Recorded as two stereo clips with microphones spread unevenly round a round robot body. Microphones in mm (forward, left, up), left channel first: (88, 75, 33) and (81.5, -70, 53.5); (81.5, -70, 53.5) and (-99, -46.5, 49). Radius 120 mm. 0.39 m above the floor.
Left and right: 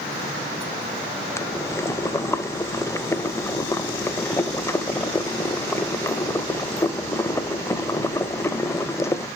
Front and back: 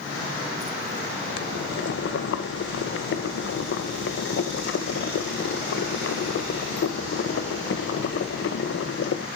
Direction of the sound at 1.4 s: 15° left.